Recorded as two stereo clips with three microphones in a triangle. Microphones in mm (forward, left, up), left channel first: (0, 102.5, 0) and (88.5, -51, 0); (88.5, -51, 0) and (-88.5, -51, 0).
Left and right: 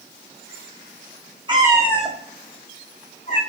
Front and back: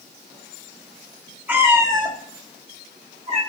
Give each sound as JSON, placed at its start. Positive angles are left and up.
{"t": 1.5, "sound": "a cat meowing", "azimuth_deg": -105, "distance_m": 0.9}